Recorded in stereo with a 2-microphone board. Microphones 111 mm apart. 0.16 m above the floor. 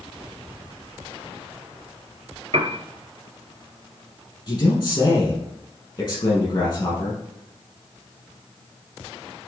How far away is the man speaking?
About 3.5 m.